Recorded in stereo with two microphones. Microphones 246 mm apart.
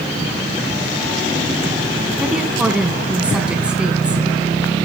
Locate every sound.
2.2 s a woman speaking: 5° right (ahead or behind), 1.6 m